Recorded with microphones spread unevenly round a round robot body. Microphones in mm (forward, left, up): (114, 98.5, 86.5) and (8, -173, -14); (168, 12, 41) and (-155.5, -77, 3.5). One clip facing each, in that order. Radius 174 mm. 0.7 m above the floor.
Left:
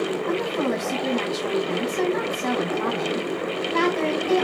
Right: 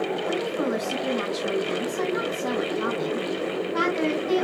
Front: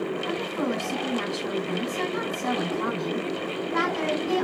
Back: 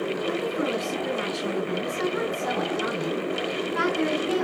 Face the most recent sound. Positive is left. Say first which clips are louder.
# left 2 dB, back 1 dB
turn(degrees=15)